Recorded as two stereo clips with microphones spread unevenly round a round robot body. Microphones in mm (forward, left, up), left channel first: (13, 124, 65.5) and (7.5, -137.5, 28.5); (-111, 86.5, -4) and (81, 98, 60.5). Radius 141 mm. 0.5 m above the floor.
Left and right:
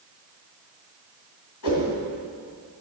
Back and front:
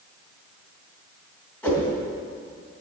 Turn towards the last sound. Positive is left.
turn(degrees=105)